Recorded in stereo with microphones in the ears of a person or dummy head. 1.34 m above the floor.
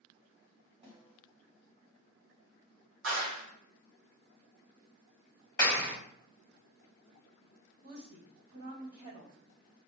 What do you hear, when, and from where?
0.8 s a snare drum: 25° right (ahead or behind), 1.9 m
3.0 s a clap: 70° right (ahead or behind), 1.1 m
5.6 s a clap: 20° left (ahead or behind), 1.5 m
7.8 s a woman speaking: 35° right (ahead or behind), 1.4 m